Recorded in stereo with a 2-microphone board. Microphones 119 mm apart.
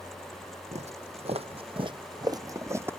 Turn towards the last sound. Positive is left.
turn(degrees=-20)  # may be behind; listen again after turning